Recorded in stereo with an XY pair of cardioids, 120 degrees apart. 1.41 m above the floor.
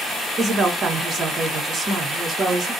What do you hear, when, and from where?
0.4 s a woman speaking: 25° right, 1.2 m